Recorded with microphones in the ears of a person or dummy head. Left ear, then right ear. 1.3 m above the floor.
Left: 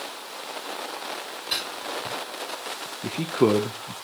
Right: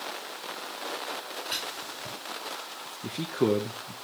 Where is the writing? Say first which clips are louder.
Left 7 dB; 20° left (ahead or behind), 4 m.